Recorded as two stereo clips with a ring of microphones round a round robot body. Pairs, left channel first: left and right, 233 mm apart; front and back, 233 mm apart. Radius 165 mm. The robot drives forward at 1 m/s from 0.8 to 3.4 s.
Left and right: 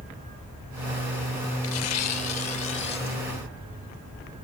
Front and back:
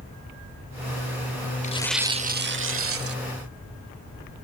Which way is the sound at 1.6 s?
60° left.